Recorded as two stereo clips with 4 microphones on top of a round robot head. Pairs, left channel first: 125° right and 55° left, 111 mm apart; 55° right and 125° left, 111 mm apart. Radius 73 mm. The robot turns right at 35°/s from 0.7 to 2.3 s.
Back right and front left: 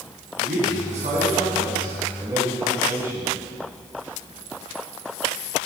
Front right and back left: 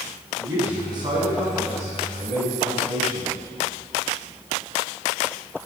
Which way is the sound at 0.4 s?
65° left.